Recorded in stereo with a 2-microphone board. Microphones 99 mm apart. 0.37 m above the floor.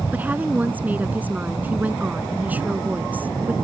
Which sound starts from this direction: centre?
A woman speaking, at 0.1 s.